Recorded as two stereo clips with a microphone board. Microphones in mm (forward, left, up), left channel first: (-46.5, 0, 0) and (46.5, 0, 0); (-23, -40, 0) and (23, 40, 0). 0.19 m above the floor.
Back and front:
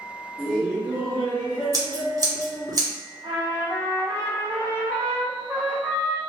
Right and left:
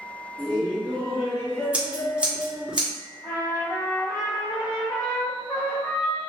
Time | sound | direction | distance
0.4 | laughter | 45° right | 1.8 m
1.7 | scissors | 10° right | 1.3 m
3.2 | a trumpet | 65° right | 1.2 m